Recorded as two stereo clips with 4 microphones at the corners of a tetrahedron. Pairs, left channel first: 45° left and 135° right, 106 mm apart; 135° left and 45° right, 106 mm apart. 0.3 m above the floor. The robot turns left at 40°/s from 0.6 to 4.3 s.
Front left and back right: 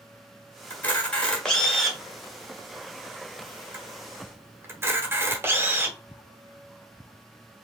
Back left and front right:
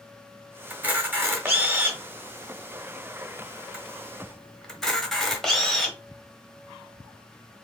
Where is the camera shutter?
Straight ahead, 1.4 m; by 6.0 s 140° right, 1.4 m.